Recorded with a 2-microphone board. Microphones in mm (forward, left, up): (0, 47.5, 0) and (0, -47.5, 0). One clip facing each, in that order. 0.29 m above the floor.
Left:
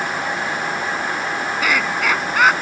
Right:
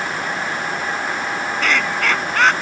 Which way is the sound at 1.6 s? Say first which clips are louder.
Even; 5° left (ahead or behind).